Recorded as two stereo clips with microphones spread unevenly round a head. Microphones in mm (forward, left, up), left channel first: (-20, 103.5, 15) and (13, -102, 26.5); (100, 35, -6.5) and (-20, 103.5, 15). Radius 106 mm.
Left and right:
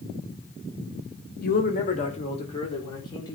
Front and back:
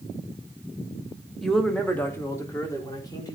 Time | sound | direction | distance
1.4 | a man speaking | 60° left | 1.9 m